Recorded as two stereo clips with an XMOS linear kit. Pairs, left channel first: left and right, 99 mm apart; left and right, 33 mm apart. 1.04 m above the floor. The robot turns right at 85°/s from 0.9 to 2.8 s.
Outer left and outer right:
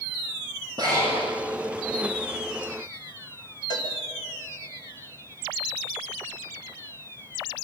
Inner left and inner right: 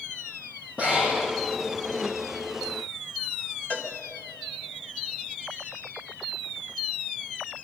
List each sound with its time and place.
0.8 s breathing: 40° right, 9 m; by 1.3 s 5° right, 9 m
3.7 s a cowbell: 45° left (ahead or behind), 2 m